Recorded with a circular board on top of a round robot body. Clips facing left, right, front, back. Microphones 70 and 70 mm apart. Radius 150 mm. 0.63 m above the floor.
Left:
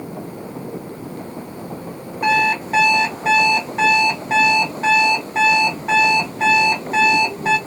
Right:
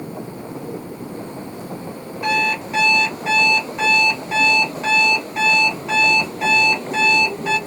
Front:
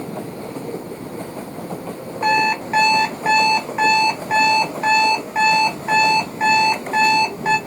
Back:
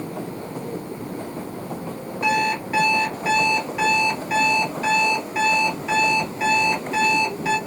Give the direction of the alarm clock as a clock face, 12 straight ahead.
10 o'clock.